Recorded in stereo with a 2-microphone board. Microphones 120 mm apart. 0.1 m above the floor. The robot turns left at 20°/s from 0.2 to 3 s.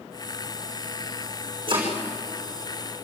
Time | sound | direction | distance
1.7 | chopping | 45° right (ahead or behind) | 5.5 m